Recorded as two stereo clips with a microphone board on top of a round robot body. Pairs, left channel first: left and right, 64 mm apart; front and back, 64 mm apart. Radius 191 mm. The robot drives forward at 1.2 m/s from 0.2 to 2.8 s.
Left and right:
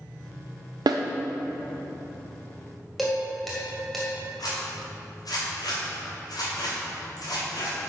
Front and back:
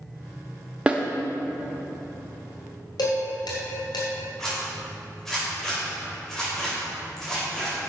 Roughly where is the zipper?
Left.